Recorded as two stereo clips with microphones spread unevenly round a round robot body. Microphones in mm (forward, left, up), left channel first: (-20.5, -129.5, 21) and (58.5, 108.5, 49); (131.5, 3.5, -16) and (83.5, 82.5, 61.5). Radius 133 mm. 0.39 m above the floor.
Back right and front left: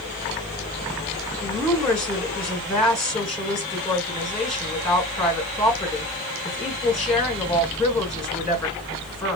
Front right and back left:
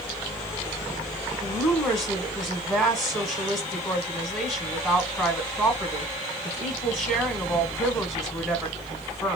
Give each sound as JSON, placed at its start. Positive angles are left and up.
{"t": 1.4, "sound": "a woman speaking", "azimuth_deg": -30, "distance_m": 1.7}